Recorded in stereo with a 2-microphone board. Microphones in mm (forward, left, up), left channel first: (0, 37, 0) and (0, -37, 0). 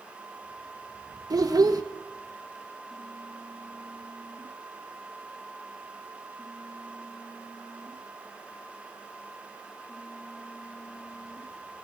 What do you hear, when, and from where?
1.3 s a child speaking: 55° right (ahead or behind), 0.9 m